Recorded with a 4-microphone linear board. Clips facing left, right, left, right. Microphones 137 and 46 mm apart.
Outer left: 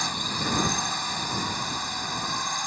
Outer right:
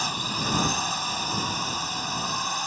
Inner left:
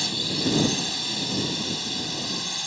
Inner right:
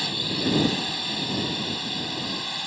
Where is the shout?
No shout in this recording.